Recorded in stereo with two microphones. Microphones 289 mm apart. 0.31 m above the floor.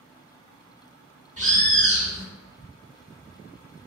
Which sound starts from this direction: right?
A bird, at 1.4 s.